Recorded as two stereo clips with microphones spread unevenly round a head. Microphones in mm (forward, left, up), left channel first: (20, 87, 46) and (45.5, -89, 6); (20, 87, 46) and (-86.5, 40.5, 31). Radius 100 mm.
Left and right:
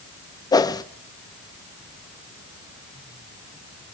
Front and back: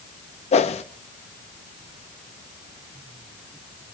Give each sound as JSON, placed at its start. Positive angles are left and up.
{"t": 0.5, "sound": "a whoosh", "azimuth_deg": 25, "distance_m": 0.6}